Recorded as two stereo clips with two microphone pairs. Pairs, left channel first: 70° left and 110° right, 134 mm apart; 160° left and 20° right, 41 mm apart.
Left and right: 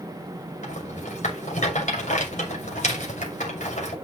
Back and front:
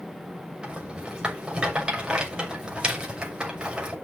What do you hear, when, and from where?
0.6 s a rattle: 45° left, 6 m